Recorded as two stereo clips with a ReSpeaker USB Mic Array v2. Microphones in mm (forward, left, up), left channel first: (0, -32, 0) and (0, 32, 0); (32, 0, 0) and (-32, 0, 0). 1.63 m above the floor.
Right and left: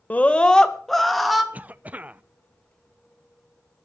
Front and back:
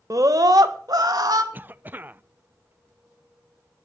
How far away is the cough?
About 0.5 m.